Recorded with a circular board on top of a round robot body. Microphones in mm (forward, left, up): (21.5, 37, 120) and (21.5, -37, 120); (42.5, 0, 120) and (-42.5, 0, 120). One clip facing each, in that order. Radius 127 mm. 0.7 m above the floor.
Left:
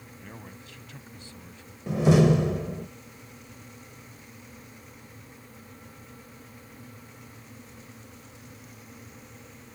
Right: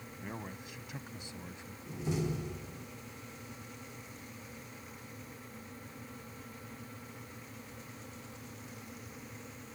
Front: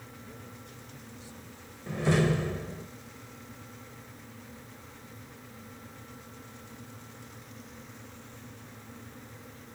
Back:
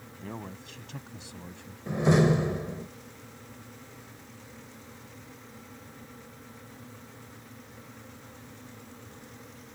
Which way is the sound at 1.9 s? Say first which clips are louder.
Left 16 dB, back 4 dB; 110° left.